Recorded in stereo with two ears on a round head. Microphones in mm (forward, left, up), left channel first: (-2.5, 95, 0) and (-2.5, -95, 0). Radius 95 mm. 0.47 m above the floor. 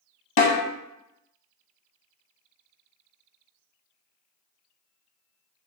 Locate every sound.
0.4 s a snare drum: 60° left (ahead or behind), 0.7 m